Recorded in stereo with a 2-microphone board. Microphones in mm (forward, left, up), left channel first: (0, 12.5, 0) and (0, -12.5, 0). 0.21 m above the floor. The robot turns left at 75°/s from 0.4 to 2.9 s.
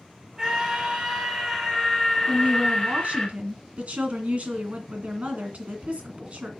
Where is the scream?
20° right (ahead or behind), 1.5 m; by 3.3 s 20° left (ahead or behind), 1.5 m.